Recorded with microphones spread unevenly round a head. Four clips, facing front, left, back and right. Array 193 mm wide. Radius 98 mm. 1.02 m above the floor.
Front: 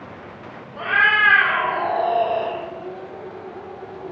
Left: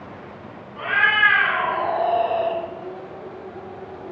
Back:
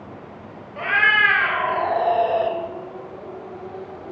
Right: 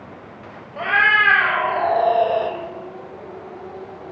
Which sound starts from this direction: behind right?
A cat meowing, at 0.8 s.